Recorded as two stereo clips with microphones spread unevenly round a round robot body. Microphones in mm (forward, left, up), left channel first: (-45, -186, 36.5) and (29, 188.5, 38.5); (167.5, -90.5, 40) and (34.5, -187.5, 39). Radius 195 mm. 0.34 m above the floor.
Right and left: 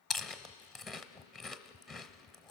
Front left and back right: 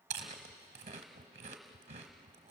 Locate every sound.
0.1 s chewing: 170° left, 0.9 m